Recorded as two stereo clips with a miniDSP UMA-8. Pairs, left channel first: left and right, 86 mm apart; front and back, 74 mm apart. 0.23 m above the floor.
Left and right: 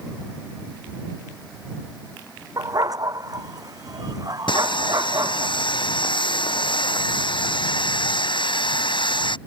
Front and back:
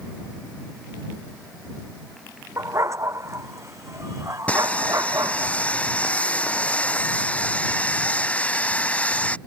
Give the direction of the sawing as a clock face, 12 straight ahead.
10 o'clock.